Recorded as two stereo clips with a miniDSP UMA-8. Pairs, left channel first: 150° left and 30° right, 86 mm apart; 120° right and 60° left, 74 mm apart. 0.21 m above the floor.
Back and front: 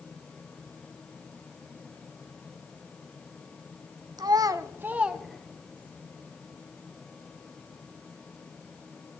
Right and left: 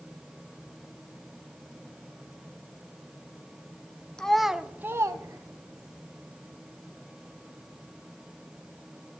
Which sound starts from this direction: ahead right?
A child speaking, at 4.2 s.